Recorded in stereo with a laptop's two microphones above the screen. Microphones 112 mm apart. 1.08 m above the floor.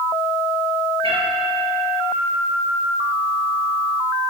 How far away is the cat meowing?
About 1.7 m.